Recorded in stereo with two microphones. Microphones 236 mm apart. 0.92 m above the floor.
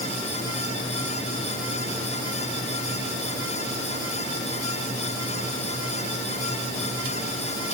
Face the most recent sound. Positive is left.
No sound to turn to.